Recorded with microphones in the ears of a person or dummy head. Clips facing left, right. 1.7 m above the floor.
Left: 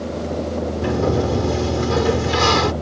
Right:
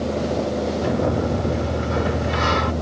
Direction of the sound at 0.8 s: 90° left.